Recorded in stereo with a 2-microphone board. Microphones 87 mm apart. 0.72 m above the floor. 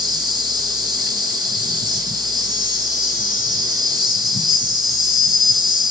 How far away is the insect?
About 3 m.